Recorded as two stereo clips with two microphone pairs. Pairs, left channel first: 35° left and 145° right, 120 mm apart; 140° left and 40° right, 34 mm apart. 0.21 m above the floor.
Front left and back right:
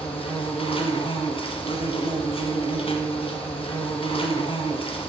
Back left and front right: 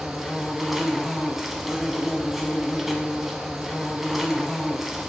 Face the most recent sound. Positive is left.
turn(degrees=40)